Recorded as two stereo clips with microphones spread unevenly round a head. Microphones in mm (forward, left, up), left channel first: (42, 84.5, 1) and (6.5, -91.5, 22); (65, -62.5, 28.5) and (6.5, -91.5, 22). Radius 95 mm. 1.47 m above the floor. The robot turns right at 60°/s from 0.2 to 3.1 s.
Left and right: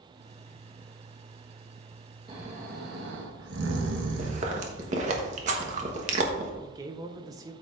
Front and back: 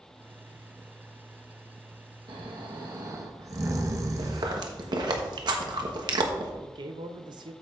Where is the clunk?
No clunk in this recording.